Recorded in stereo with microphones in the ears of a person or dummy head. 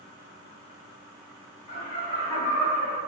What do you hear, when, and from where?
1.7 s laughter: 50° left (ahead or behind), 0.9 m